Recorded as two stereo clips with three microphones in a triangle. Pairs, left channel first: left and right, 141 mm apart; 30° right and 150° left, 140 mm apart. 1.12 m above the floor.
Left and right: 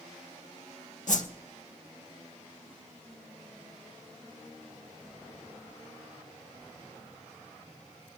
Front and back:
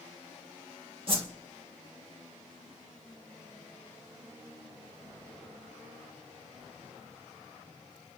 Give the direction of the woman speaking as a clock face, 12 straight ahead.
I don't hear a woman speaking.